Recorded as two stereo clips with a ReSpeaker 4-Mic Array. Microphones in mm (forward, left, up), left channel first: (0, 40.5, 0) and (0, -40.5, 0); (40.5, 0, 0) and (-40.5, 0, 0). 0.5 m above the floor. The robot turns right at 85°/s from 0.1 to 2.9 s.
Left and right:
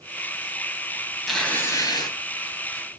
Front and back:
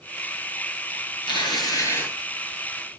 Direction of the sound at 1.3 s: Straight ahead.